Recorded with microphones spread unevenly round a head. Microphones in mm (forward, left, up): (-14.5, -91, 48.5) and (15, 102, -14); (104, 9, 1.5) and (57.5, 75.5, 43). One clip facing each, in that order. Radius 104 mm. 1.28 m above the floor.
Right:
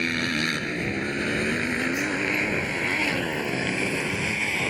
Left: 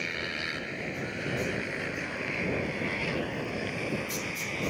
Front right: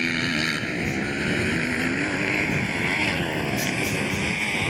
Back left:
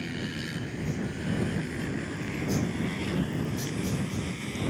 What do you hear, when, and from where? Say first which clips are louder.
0.0 s a motorcycle: right 11 dB, front right 9 dB; 80° right; by 4.7 s 85° right